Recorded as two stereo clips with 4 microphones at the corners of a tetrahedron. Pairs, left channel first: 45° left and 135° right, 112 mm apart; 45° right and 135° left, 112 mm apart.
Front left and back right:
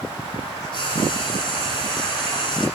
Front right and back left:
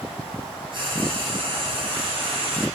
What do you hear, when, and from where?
0.7 s frying: 90° left, 9.5 m